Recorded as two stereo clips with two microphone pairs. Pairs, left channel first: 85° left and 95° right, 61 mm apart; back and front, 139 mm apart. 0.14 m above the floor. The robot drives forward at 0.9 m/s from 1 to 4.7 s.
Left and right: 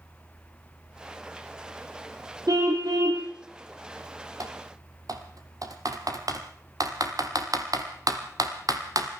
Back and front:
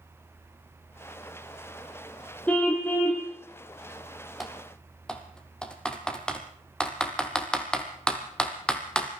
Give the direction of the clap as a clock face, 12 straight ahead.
I don't hear a clap.